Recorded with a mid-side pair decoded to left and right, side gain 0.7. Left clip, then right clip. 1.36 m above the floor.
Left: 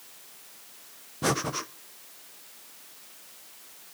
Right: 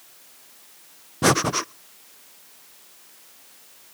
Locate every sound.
1.2 s breathing: 40° right, 0.5 m